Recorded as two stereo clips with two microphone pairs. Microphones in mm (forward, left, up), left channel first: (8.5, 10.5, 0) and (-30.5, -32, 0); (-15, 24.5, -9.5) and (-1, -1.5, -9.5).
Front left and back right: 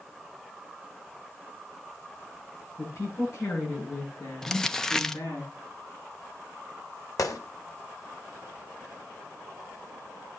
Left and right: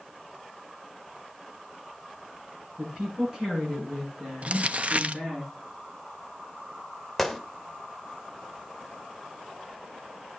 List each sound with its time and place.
2.8 s a woman speaking: 10° left, 8 m; by 5.4 s 25° left, 8 m
4.4 s crumpling: 35° right, 0.7 m
7.2 s a gunshot: 35° left, 1.4 m